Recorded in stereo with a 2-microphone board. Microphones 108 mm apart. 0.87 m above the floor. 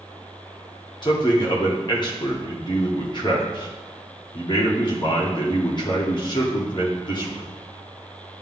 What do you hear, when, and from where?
1.0 s a man speaking: 45° left (ahead or behind), 1.5 m